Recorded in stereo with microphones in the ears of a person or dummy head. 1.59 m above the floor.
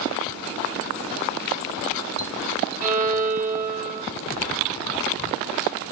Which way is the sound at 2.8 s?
45° right (ahead or behind).